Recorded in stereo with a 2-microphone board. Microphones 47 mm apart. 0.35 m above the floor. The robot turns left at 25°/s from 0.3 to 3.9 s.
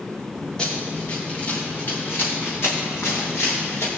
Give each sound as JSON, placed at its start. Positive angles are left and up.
{"t": 0.6, "sound": "running footsteps", "side_deg": 20, "distance_m": 4.0}